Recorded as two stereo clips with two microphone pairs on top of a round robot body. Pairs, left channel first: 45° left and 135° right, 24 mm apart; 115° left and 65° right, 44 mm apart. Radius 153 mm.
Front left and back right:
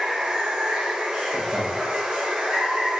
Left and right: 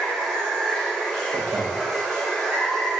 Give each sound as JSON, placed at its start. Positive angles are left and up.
{"t": 0.0, "sound": "running water", "azimuth_deg": -155, "distance_m": 1.8}
{"t": 1.3, "sound": "laughter", "azimuth_deg": -95, "distance_m": 1.1}